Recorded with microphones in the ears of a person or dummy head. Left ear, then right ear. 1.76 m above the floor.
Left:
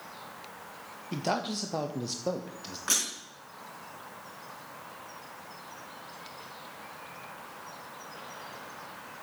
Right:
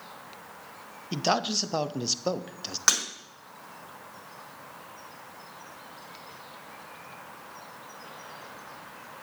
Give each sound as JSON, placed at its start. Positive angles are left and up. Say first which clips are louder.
{"t": 1.1, "sound": "a man speaking", "louder": "right 5 dB", "side_deg": -30, "distance_m": 0.9}
{"t": 2.9, "sound": "breaking glass", "louder": "right 5 dB", "side_deg": -70, "distance_m": 4.5}